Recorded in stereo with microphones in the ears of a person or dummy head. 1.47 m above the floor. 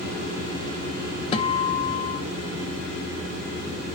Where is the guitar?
30° left (ahead or behind), 0.8 m.